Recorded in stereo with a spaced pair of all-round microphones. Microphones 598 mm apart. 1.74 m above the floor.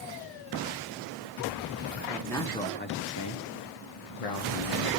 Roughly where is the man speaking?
Centre.